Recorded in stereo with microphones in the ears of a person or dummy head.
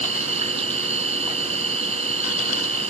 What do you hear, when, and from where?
0.0 s an insect: 35° right (ahead or behind)